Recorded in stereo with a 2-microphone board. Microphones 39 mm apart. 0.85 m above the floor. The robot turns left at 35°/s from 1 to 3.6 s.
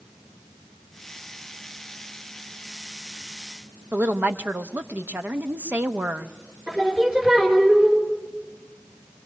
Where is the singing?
25° right (ahead or behind), 3.5 m.